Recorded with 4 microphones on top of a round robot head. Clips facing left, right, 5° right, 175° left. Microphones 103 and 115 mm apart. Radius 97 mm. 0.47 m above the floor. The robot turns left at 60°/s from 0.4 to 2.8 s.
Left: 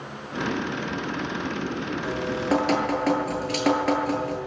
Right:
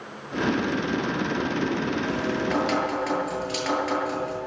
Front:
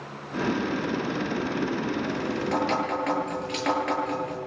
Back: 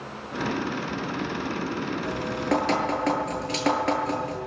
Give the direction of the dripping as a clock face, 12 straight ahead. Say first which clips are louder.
Even, back 1 dB; 6 o'clock.